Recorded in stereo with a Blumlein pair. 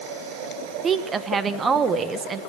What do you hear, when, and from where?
0.8 s a woman speaking: 20° right, 1.0 m